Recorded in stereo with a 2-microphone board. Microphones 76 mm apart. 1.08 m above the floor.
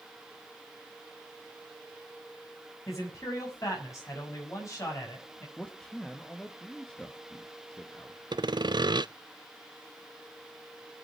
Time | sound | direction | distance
2.9 | a man speaking | 40° left (ahead or behind) | 6.5 m
5.6 | a man speaking | 10° left (ahead or behind) | 1.6 m
8.3 | sawing | 70° right (ahead or behind) | 0.5 m